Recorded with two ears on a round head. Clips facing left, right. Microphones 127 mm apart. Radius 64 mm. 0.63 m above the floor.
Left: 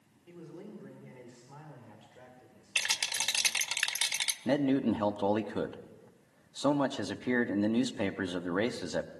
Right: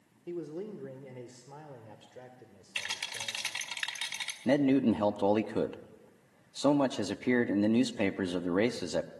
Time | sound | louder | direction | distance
0.3 | a man speaking | right 9 dB | 60° right (ahead or behind) | 1.8 m
2.8 | a rattle | left 3 dB | 55° left (ahead or behind) | 1.6 m
4.5 | a man speaking | right 2 dB | 15° right (ahead or behind) | 0.6 m